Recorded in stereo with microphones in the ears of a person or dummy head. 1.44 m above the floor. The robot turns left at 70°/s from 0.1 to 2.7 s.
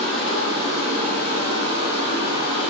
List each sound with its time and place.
0.0 s running water: 10° left, 1.5 m; by 2.7 s 170° right, 1.5 m